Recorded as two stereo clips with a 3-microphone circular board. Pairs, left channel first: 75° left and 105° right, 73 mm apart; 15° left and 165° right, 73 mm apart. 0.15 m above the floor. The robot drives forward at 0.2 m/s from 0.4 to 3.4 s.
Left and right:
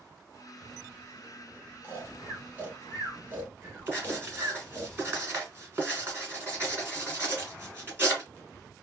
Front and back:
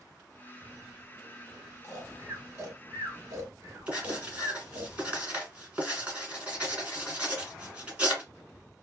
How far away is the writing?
About 1.5 m.